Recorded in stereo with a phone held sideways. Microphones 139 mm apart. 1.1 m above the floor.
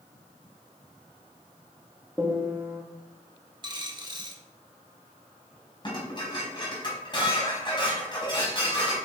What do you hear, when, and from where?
2.2 s a piano: 15° right (ahead or behind), 2 m
3.6 s a dropped coin: 30° right (ahead or behind), 1.5 m
5.8 s dishes clattering: 30° left (ahead or behind), 4.5 m